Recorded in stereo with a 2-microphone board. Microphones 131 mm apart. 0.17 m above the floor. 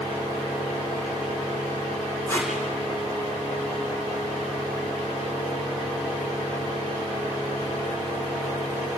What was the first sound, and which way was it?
Tape being pulled, 20° left (ahead or behind).